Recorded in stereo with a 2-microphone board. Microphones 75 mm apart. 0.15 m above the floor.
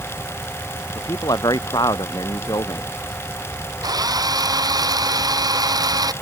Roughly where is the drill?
Right.